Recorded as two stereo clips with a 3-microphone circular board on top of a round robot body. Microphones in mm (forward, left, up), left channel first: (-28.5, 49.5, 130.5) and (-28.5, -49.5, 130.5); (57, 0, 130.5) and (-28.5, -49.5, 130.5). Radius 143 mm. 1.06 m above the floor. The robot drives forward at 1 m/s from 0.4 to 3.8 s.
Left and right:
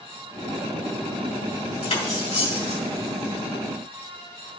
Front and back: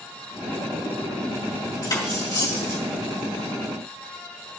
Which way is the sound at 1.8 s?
80° left.